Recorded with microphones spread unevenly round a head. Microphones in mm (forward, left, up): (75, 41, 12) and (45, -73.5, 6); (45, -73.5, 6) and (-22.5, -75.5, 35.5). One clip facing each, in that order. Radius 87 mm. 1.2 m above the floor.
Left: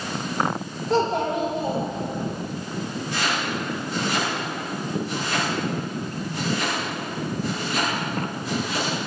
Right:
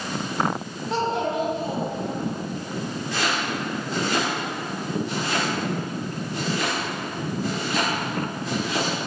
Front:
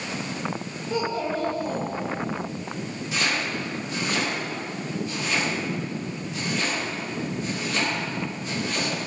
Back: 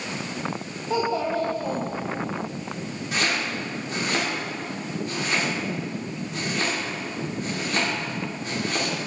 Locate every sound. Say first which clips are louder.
0.9 s a child speaking: left 3 dB, back 3 dB; 140° left, 2.5 m; by 2.3 s 130° left, 3.5 m
3.1 s chopping: even, back 1 dB; 140° right, 4 m